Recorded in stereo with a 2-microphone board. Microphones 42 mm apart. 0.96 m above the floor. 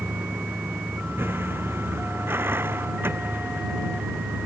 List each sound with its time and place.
0.0 s a vehicle: 65° right (ahead or behind)